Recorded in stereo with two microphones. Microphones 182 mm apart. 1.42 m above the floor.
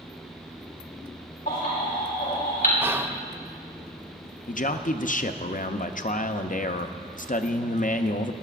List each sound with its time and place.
1.5 s a baby crying: 55° left (ahead or behind), 4 m
2.8 s whispering: 15° right (ahead or behind), 0.5 m
4.5 s a man speaking: 50° left (ahead or behind), 0.6 m